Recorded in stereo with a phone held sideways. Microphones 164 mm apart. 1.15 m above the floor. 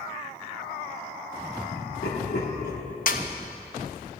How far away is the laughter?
About 2.5 m.